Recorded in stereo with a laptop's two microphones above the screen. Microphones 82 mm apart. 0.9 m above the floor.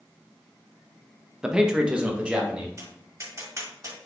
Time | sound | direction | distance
1.4 | a man speaking | 10° right (ahead or behind) | 0.8 m
2.8 | tapping | 40° right (ahead or behind) | 2.5 m